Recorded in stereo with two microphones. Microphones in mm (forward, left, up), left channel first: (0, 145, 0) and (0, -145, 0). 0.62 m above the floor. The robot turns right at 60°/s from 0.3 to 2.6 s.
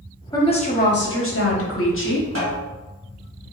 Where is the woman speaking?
15° left, 0.8 m; by 2.2 s 130° left, 0.8 m.